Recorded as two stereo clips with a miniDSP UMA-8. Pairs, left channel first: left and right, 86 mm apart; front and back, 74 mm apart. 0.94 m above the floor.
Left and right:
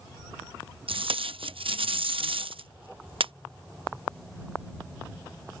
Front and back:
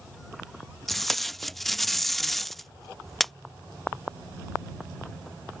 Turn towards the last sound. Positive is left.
turn(degrees=-85)